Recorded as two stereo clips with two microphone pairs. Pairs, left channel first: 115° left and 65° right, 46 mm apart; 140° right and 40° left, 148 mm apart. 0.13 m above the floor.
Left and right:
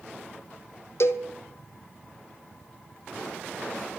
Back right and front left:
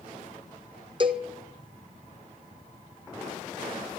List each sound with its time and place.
1.0 s a cowbell: 95° left, 1.0 m